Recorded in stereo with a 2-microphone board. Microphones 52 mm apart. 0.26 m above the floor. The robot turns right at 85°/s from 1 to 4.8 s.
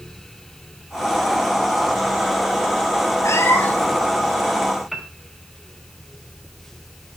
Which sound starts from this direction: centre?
A piano, at 4.9 s.